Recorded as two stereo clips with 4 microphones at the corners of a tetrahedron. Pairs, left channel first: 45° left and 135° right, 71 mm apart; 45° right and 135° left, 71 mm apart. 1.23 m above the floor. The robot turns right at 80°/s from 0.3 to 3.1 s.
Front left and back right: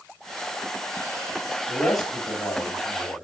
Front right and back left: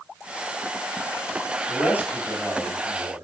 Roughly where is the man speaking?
Ahead.